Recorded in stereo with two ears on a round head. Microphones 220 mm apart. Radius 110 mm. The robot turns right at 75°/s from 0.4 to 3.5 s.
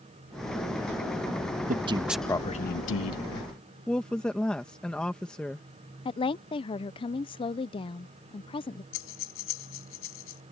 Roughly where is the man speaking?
Ahead right.